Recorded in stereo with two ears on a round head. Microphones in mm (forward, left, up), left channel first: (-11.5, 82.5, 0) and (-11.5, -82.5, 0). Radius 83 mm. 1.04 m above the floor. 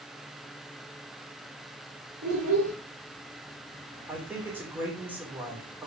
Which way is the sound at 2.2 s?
75° right (ahead or behind).